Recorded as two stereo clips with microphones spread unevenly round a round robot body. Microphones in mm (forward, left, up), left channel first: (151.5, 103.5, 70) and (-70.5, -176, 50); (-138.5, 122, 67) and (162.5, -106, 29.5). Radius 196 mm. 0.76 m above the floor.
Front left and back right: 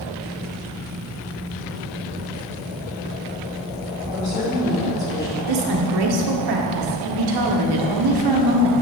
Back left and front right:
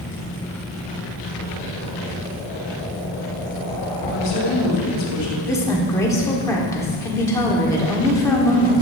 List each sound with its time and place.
4.1 s a woman speaking: 150° left, 3.5 m
5.5 s a woman speaking: 135° right, 1.7 m